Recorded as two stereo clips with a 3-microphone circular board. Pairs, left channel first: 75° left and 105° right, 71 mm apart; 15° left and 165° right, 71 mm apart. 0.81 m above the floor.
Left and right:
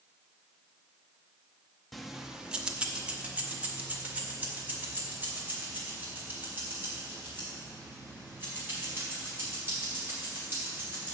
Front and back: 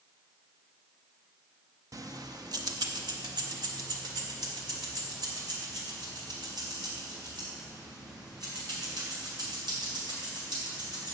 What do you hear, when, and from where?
1.9 s keys jangling: 165° left, 0.6 m; by 11.1 s 165° right, 6.5 m